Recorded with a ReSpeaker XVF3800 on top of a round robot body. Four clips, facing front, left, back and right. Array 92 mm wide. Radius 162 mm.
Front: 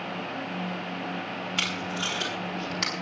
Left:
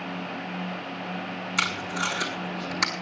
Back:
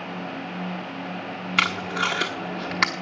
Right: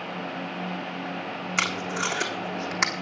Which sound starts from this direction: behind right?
Tape being pulled, at 1.6 s.